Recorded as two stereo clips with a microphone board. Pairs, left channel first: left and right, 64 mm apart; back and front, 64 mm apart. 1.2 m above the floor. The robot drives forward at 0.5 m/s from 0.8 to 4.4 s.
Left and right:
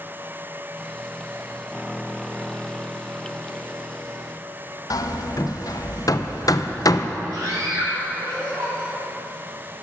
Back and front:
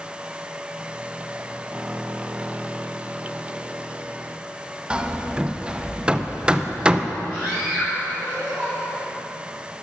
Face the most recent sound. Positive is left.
turn(degrees=-70)